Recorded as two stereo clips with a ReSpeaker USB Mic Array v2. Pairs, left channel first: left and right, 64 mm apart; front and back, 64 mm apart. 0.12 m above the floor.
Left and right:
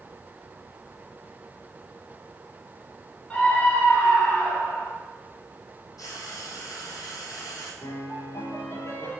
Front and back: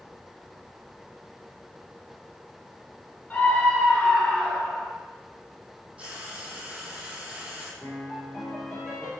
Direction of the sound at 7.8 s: 85° left.